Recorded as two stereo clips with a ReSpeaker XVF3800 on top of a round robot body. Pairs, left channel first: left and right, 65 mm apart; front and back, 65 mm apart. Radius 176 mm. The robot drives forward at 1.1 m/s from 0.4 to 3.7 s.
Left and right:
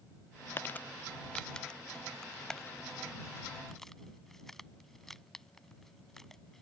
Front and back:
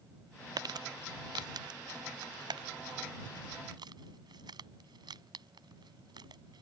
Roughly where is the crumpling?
Behind left.